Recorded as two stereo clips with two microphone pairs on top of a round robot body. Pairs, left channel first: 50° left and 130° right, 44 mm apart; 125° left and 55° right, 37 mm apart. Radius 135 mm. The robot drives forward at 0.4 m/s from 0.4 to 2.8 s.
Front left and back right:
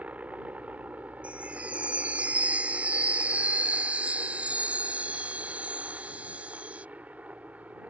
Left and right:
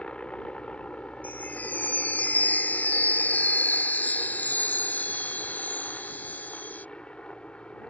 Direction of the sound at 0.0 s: Straight behind.